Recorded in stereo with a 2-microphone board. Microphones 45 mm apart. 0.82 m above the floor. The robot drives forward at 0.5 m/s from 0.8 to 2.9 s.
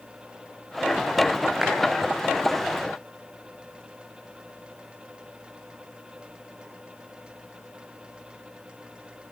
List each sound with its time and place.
1.6 s a clap: 10° right (ahead or behind), 8 m